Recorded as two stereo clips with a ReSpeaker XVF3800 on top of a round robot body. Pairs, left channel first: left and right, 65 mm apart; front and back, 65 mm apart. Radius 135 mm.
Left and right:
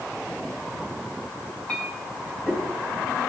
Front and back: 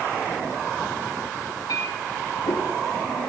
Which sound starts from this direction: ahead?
A clink, at 1.7 s.